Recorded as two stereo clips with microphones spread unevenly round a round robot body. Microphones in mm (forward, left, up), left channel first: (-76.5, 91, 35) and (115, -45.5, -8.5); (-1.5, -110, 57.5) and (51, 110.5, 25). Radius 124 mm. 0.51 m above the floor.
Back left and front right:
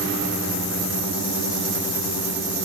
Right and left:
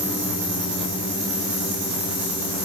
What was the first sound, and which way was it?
Only background noise.